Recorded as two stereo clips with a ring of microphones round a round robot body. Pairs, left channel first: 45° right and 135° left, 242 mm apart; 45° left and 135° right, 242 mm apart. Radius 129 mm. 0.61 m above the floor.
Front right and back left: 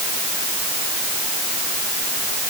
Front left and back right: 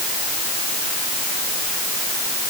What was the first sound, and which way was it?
Only background noise.